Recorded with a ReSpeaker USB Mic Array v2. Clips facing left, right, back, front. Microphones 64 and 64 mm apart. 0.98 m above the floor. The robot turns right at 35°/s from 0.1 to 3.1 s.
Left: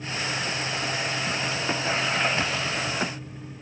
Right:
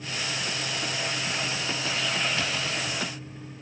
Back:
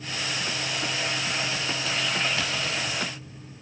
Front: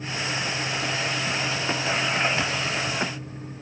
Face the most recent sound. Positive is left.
No sound to turn to.